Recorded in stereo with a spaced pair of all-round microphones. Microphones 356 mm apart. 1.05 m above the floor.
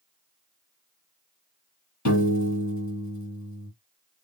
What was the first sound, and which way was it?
A piano, 50° left (ahead or behind).